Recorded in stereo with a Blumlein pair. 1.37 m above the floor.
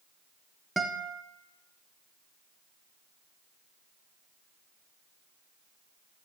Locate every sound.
0.8 s a guitar: 5° right, 0.8 m